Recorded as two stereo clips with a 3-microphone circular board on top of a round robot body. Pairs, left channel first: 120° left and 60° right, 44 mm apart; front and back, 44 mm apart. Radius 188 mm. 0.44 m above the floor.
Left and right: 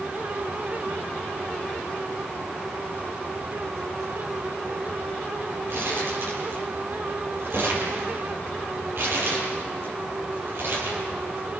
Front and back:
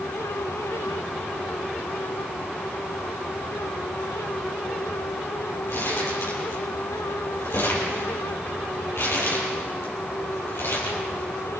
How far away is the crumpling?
About 7.5 m.